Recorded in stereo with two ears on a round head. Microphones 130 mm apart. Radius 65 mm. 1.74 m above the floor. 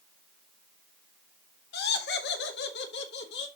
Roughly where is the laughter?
Left.